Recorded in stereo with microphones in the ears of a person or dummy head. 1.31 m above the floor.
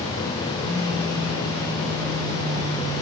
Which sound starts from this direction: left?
A phone buzzing, at 0.6 s.